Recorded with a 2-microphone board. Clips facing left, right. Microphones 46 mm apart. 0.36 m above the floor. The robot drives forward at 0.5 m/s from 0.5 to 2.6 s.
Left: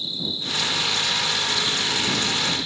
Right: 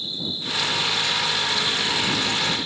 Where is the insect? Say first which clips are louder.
Even; 30° right (ahead or behind), 8.5 m.